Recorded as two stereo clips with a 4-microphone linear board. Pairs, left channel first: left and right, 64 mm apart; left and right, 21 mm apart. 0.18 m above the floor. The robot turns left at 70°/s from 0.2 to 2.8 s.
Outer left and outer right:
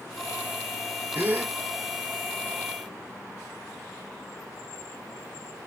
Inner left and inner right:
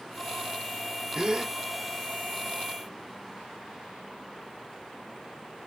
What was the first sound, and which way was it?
A gasp, 35° right (ahead or behind).